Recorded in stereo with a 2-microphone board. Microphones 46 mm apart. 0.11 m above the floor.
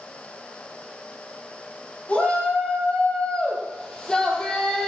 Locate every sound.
2.1 s a shout: 25° left (ahead or behind), 5 m; by 4.9 s 10° left (ahead or behind), 3.5 m